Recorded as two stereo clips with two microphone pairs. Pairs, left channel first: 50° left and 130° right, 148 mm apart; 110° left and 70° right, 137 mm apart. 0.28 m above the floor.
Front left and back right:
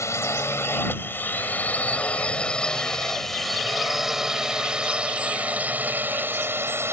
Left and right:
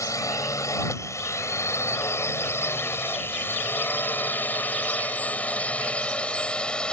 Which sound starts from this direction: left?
A drone, at 0.0 s.